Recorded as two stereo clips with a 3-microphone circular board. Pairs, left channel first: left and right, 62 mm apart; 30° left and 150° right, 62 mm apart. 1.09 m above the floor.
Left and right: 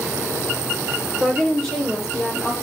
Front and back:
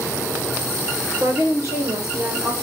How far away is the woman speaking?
About 3.5 m.